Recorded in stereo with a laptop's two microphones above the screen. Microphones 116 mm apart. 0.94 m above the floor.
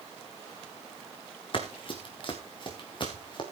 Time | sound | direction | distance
1.5 | running footsteps | 50° left (ahead or behind) | 3.5 m